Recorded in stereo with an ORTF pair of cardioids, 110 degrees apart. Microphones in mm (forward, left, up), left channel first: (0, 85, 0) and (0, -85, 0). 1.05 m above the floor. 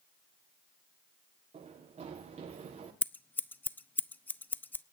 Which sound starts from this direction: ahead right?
Running footsteps, at 1.5 s.